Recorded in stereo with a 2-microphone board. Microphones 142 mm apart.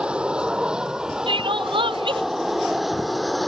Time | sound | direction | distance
0.0 | an aircraft | 5° right (ahead or behind) | ?
1.3 | crying | 35° right (ahead or behind) | ?